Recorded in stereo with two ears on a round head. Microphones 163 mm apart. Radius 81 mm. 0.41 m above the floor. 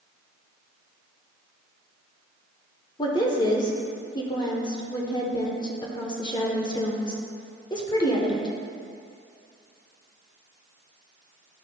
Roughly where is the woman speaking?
Left.